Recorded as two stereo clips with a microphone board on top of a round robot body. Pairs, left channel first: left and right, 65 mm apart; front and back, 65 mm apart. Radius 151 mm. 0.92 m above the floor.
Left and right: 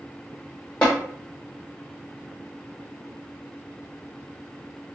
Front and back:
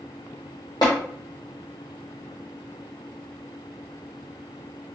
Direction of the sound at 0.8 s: 35° left.